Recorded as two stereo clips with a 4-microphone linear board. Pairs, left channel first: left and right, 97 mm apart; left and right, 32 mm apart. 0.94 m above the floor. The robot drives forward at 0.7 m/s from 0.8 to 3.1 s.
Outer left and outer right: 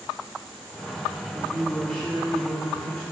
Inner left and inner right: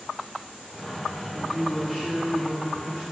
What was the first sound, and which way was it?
A woman speaking, 10° left (ahead or behind).